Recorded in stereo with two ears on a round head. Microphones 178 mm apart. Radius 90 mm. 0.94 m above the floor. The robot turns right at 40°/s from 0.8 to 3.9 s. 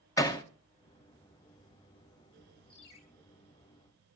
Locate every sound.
0.2 s hammering: 15° left (ahead or behind), 1.4 m
2.7 s a ringtone: 80° left, 2.5 m; by 3.0 s 90° left, 2.5 m